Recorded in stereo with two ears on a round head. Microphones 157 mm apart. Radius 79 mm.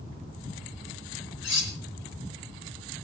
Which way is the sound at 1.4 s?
75° left (ahead or behind).